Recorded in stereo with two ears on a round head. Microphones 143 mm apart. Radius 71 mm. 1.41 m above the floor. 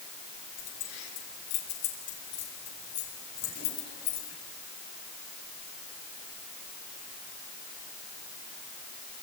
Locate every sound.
0.6 s keys jangling: 85° left, 7 m; by 4.4 s 60° left (ahead or behind), 8 m